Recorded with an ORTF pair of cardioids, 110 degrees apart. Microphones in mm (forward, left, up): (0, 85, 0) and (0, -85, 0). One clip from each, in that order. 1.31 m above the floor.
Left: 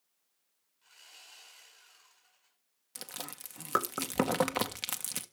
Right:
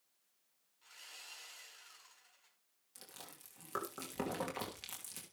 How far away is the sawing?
About 10 m.